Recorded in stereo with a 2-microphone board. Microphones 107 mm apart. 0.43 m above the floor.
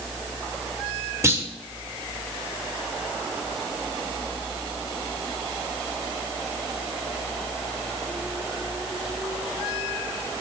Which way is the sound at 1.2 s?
25° right (ahead or behind).